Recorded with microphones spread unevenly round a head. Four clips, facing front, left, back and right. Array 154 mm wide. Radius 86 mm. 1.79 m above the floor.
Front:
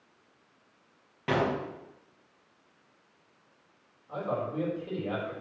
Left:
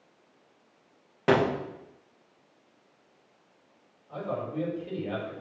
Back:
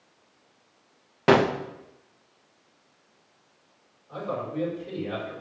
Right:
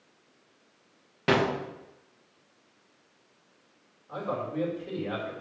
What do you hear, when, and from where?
1.3 s a gunshot: straight behind, 0.7 m
4.1 s a man speaking: 60° right, 4 m